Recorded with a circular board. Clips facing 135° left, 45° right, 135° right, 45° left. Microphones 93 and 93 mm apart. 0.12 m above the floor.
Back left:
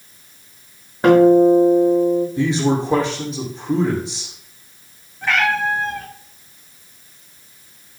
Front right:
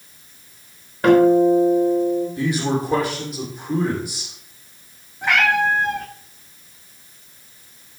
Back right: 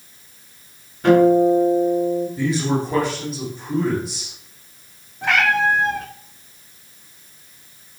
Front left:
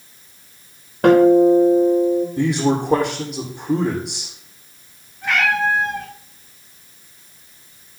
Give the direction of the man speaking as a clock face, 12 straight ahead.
10 o'clock.